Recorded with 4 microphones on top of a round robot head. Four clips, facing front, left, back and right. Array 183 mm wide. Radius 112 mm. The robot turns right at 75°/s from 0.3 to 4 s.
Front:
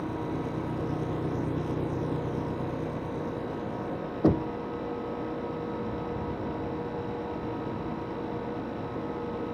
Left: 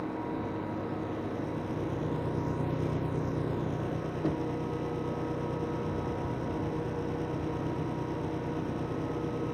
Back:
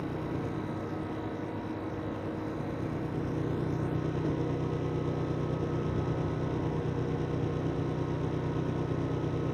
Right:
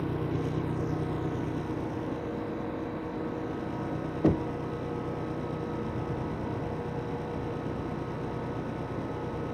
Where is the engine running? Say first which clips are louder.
Right 2 dB, front 2 dB; 105° right; by 9.6 s 175° left.